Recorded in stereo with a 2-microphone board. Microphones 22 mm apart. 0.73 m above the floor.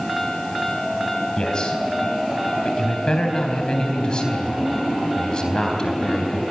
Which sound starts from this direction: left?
A man speaking, at 1.4 s.